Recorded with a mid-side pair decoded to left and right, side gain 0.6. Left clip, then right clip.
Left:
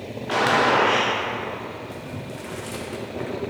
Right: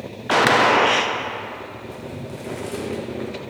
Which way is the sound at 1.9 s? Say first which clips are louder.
Right 1 dB; 10° left.